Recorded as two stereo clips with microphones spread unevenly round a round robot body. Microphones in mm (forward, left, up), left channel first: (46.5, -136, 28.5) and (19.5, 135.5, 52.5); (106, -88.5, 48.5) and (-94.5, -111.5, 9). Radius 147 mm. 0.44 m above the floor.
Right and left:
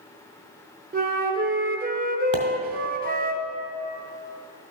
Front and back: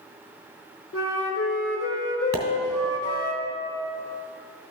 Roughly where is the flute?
Ahead left.